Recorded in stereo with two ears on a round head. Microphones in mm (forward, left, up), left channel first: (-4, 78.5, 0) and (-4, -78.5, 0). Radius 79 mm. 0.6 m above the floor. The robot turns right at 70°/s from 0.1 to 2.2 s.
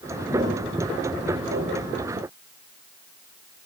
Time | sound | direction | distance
0.3 | footsteps | 10° right (ahead or behind) | 7.5 m